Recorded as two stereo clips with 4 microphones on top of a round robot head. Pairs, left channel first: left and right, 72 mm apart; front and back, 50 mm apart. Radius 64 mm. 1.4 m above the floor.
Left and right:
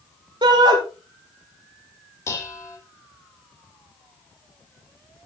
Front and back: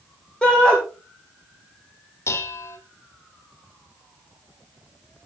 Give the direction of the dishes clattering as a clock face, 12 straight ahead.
11 o'clock.